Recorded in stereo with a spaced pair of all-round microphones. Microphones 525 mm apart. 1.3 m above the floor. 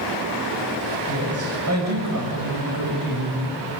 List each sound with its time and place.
1.1 s a woman speaking: 25° right (ahead or behind), 8 m; by 3.6 s 45° right (ahead or behind), 8 m